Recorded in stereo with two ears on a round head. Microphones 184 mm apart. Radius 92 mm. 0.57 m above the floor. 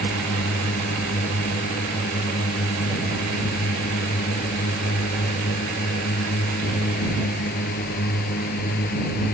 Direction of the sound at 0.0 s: 45° left (ahead or behind).